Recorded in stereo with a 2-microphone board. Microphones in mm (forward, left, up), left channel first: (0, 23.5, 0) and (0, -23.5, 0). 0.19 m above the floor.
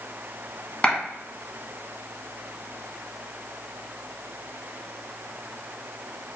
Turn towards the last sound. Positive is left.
turn(degrees=20)  # may be behind; listen again after turning